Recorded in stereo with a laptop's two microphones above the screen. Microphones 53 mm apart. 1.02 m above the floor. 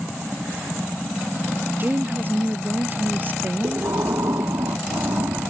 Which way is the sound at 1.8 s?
40° right (ahead or behind).